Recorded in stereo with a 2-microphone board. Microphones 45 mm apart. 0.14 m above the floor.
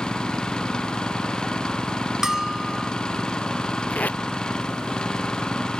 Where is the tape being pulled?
40° left (ahead or behind).